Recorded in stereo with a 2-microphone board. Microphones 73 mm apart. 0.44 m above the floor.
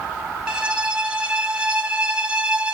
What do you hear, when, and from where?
0.5 s a violin: 15° right (ahead or behind), 0.6 m